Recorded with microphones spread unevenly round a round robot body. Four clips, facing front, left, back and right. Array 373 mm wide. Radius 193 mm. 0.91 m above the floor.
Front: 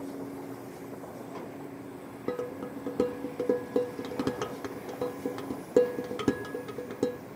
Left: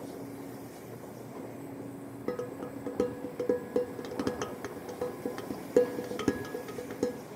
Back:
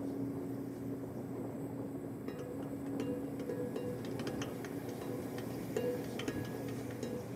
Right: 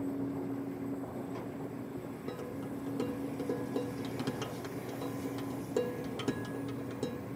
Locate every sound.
2.3 s dishes clattering: 30° left, 1.9 m